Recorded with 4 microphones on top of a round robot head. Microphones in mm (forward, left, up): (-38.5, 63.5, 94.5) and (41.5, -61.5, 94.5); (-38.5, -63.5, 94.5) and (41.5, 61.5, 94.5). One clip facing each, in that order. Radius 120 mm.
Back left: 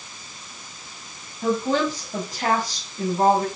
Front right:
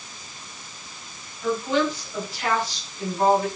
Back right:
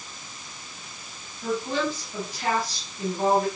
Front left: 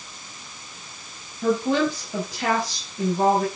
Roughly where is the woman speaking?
Left.